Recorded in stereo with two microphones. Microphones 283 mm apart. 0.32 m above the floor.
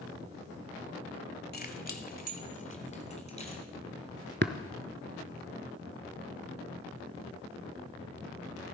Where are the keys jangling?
35° left (ahead or behind), 1.2 m; by 3.6 s 25° left (ahead or behind), 2.5 m.